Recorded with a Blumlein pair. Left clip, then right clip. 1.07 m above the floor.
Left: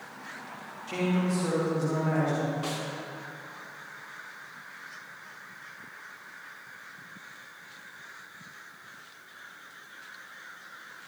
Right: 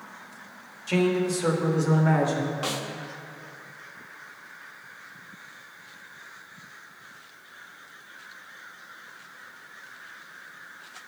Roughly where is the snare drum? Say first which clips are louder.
Right 3 dB; ahead right.